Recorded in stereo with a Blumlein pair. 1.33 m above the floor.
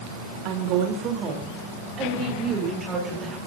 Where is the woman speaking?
45° right, 4 m; by 3.4 s 25° right, 7.5 m.